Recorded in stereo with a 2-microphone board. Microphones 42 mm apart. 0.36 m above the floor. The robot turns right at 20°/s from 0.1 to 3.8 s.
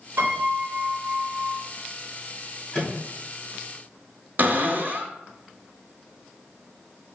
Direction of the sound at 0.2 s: 60° right (ahead or behind).